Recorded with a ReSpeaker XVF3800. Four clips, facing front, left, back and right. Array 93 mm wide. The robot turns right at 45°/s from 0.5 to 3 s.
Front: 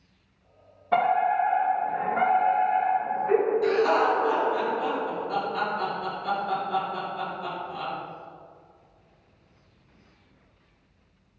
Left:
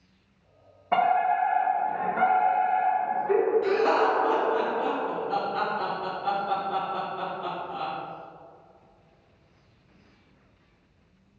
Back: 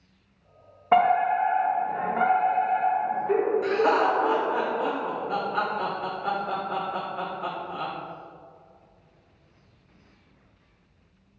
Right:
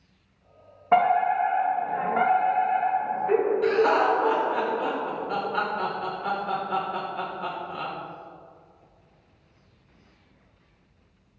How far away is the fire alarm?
About 2 m.